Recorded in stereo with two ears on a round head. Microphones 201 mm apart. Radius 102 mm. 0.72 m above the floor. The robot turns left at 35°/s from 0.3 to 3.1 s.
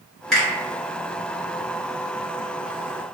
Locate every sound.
0.3 s a finger snap: centre (ahead or behind), 1.5 m; by 0.5 s 5° right (ahead or behind), 1.5 m